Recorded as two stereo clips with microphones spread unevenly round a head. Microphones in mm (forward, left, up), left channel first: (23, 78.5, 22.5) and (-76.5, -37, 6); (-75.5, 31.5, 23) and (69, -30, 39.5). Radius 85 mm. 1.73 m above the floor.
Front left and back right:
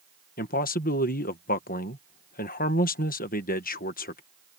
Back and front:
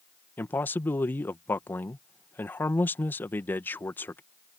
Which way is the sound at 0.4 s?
80° left.